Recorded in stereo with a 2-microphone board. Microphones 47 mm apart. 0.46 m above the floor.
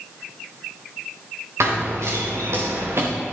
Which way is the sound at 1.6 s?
80° right.